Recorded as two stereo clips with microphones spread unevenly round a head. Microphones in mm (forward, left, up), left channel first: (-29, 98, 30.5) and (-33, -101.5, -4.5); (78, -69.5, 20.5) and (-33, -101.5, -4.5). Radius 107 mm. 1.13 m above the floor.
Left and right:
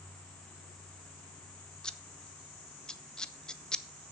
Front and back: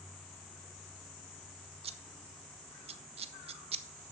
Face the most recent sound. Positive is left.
turn(degrees=180)